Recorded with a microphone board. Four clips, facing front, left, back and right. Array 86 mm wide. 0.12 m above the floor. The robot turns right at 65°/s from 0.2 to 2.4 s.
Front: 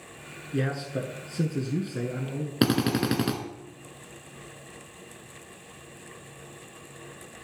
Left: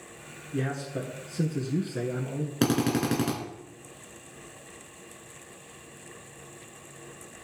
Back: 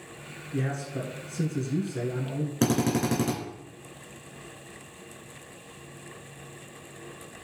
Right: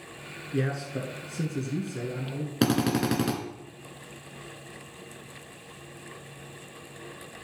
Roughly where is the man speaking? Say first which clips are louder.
Right 1 dB, front 2 dB; ahead right.